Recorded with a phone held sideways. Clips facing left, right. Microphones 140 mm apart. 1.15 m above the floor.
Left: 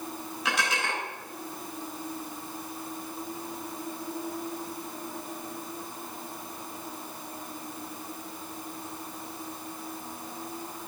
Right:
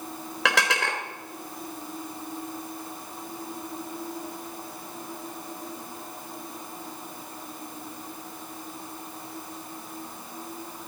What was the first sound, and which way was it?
Dishes clattering, 70° right (ahead or behind).